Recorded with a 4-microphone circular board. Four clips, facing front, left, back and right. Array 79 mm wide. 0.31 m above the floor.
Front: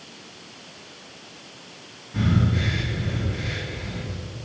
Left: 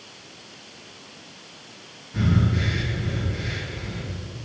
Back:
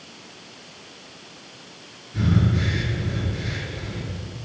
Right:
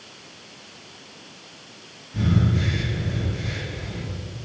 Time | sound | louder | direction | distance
2.1 | breathing | right 1 dB, back 1 dB | 15° left | 3 m